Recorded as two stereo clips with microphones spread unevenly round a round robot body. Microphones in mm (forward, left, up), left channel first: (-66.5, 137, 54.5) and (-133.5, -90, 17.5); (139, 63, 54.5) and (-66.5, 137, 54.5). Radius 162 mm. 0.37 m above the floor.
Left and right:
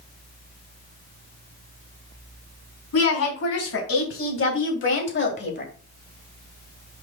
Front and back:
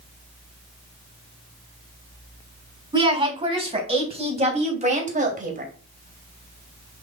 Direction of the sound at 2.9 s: 95° left.